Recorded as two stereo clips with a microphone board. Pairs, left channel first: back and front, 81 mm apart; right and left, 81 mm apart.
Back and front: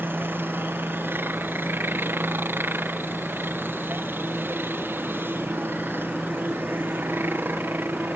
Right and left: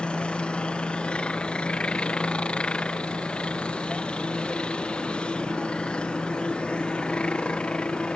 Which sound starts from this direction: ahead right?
A helicopter, at 0.0 s.